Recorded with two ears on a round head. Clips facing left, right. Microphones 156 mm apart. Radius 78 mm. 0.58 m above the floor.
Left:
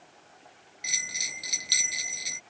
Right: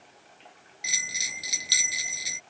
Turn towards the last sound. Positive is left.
turn(degrees=-5)  # may be behind; listen again after turning